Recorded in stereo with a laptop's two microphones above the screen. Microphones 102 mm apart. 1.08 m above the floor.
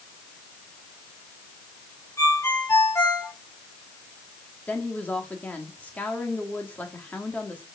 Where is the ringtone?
30° left (ahead or behind), 3 m.